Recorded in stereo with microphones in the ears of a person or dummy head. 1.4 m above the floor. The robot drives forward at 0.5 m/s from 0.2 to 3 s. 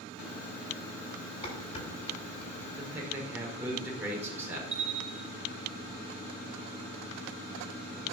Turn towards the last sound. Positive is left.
turn(degrees=-60)  # may be behind; listen again after turning